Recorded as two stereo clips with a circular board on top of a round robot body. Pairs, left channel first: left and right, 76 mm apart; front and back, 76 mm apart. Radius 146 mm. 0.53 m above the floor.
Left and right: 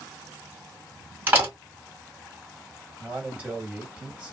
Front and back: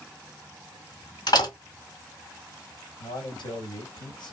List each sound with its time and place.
1.3 s a door slam: 25° right, 1.9 m
3.0 s a man speaking: 15° right, 2.0 m